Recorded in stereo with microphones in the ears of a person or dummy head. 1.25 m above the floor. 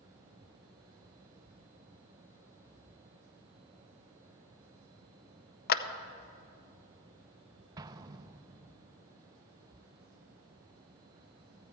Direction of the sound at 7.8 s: 20° right (ahead or behind).